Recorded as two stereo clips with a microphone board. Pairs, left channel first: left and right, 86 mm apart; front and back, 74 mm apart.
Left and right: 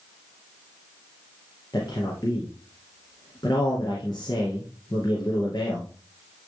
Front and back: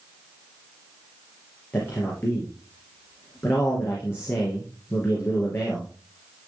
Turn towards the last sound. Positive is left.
turn(degrees=60)